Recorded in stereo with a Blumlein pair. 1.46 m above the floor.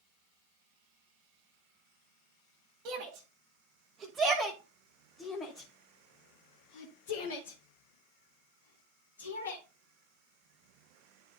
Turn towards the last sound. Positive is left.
turn(degrees=75)